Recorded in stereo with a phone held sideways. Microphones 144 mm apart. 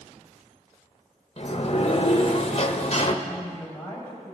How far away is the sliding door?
About 0.8 m.